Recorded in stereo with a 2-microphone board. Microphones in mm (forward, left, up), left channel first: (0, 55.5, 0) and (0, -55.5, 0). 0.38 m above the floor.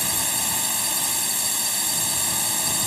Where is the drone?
Centre (ahead or behind).